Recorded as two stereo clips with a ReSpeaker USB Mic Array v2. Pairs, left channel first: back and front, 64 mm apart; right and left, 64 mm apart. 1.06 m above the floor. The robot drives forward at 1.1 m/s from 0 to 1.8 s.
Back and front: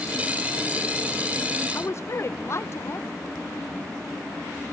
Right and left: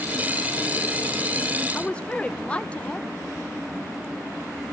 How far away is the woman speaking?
About 0.7 m.